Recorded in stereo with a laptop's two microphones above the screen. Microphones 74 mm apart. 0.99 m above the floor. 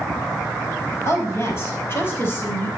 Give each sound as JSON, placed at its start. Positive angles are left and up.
{"t": 1.1, "sound": "a woman speaking", "side_deg": 35, "distance_m": 5.0}